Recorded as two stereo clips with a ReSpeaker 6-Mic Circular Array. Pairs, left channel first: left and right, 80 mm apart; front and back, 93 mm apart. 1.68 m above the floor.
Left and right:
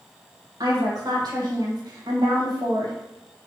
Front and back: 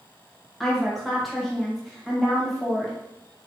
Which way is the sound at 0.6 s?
90° right.